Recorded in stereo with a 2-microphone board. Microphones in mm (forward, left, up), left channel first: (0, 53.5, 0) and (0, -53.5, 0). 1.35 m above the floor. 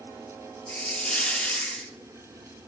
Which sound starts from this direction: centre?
A hiss, at 0.7 s.